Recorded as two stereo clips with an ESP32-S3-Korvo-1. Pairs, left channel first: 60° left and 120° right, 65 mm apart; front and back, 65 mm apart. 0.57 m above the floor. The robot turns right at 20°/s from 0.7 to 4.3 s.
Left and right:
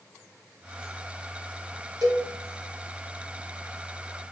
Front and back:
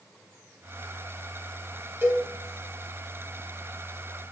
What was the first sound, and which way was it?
A cowbell, 130° right.